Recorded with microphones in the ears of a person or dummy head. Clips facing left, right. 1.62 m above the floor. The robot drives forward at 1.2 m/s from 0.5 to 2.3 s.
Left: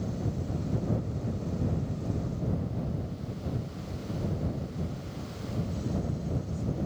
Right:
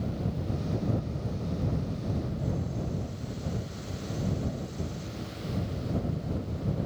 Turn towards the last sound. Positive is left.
No sound to turn to.